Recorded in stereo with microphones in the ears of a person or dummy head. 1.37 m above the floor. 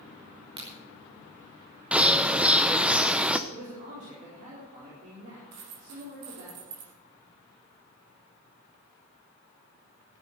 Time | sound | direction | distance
0.6 | a crack | 30° right (ahead or behind) | 4 m
1.9 | a bird | 5° right (ahead or behind) | 0.6 m
3.5 | a man speaking | 45° right (ahead or behind) | 4.5 m
5.5 | a dropped coin | 55° right (ahead or behind) | 4 m